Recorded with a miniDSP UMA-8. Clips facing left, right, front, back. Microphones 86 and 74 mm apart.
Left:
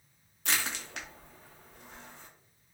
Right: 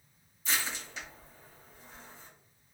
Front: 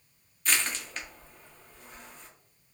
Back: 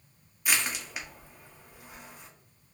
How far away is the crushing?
About 0.6 m.